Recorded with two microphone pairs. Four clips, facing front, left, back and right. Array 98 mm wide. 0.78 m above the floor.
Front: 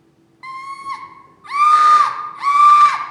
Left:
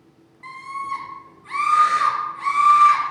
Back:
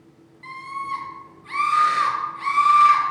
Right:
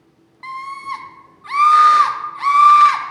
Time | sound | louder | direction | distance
0.4 | a scream | right 2 dB, front 3 dB | 40° right | 0.9 m